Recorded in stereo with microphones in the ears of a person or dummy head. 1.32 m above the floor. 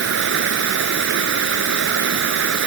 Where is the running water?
75° right (ahead or behind).